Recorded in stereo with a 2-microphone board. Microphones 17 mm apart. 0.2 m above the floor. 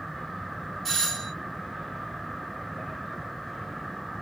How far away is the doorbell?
About 1.5 m.